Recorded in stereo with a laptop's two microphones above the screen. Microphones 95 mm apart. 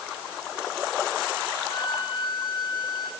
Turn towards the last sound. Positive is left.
turn(degrees=45)  # may be behind; listen again after turning